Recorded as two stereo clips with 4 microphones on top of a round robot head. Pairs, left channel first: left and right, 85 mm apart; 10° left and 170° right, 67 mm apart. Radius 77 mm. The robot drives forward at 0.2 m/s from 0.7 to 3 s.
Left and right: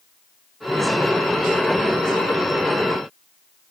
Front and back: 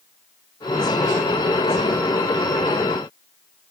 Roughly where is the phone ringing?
I don't hear a phone ringing.